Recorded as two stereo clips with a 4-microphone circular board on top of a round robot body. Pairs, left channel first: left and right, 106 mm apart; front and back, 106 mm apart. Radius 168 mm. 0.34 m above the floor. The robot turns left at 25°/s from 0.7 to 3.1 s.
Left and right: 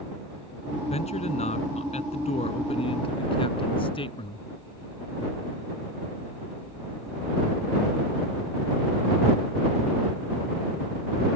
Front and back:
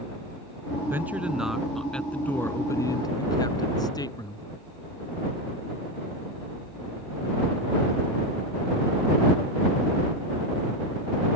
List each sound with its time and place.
0.9 s a man speaking: 110° left; by 4.4 s 55° left